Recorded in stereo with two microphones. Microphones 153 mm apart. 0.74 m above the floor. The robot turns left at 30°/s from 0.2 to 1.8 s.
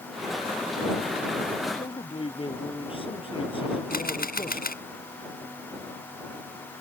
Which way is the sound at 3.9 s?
75° left (ahead or behind).